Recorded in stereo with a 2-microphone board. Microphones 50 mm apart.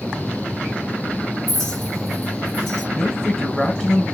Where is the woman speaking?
15° left (ahead or behind), 1.4 m.